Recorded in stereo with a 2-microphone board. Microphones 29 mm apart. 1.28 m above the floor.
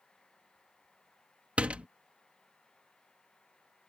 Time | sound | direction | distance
1.6 | a door slam | 50° right (ahead or behind) | ?